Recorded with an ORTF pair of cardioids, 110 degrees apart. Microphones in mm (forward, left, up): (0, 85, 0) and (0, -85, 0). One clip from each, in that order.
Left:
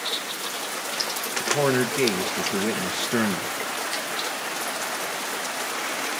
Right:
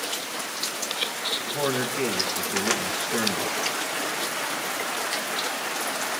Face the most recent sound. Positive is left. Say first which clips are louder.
# left 4 dB
turn(degrees=30)